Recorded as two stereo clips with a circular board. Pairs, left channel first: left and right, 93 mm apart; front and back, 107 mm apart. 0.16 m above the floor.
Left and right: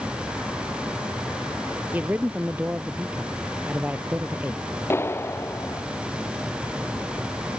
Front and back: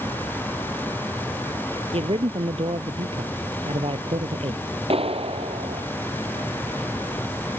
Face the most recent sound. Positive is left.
turn(degrees=155)